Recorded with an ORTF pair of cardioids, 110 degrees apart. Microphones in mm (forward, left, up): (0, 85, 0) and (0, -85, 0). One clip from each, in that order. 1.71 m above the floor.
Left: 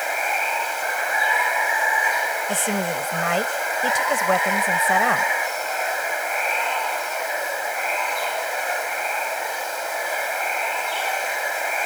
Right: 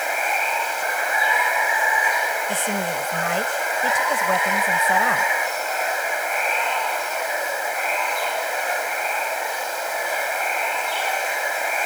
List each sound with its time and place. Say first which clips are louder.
0.0 s running water: right 1 dB; straight ahead
2.5 s a woman speaking: even; 25° left